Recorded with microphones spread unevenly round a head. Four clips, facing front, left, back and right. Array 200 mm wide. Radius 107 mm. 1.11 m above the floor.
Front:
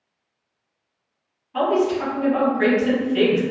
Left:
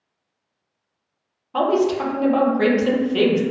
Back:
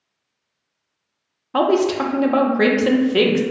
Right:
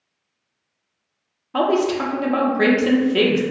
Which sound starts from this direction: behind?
A woman speaking, at 1.5 s.